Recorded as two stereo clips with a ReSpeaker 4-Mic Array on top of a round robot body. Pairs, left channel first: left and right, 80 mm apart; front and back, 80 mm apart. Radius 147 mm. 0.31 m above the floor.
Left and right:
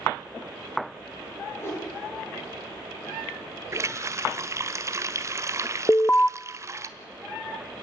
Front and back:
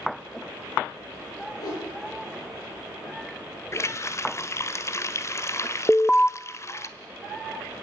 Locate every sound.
1.6 s a whoosh: 35° left, 9.5 m
3.7 s a running tap: 45° right, 1.4 m
5.9 s an alarm: 65° left, 0.6 m